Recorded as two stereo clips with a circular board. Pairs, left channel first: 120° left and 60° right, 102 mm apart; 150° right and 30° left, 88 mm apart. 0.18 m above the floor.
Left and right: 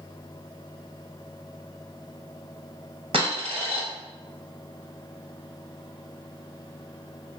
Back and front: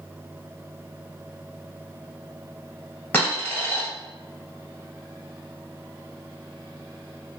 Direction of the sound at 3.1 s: 80° right.